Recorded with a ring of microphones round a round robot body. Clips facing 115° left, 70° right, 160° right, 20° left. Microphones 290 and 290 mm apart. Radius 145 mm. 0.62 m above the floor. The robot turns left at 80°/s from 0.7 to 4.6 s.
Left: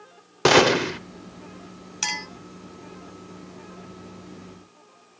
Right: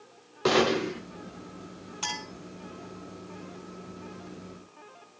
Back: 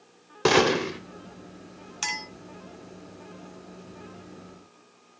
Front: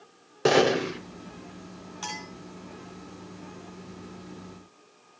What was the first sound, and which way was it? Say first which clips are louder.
A gunshot: left 5 dB, even; 130° left.